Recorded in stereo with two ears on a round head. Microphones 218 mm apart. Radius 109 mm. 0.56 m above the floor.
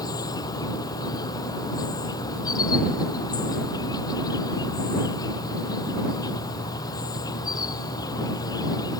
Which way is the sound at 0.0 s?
15° left (ahead or behind).